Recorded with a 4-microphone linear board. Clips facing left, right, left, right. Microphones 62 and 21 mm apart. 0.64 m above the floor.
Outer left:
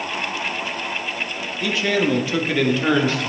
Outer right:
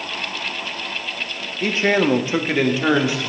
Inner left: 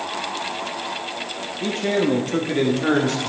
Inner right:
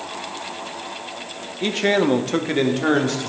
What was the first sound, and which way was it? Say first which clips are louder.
A man speaking: outer right 3 dB, inner right 3 dB; 35° right (ahead or behind).